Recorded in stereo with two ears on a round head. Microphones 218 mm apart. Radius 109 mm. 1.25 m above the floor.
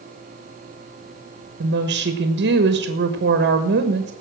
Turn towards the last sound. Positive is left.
turn(degrees=-45)  # may be behind; listen again after turning